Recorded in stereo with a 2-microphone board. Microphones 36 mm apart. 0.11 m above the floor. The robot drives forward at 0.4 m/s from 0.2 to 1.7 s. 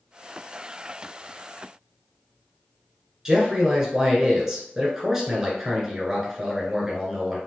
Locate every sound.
3.2 s a man speaking: 10° right (ahead or behind), 1.2 m